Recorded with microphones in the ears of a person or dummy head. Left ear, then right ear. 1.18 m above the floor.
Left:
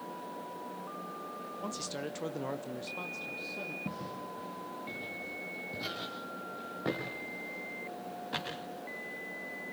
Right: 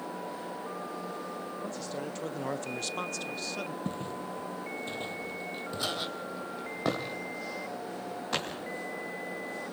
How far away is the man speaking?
About 1.1 m.